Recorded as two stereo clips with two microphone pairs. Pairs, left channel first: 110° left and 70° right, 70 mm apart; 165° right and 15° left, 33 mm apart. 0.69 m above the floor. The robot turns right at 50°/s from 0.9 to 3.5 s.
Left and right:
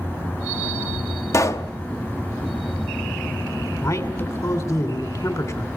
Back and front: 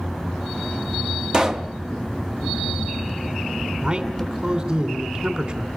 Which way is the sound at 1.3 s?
75° left.